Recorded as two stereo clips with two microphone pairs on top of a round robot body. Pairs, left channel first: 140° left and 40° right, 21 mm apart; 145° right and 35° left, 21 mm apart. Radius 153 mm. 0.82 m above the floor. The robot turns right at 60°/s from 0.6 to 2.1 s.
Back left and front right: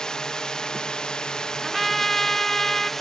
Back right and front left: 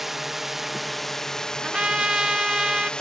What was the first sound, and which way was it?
A drone, 110° left.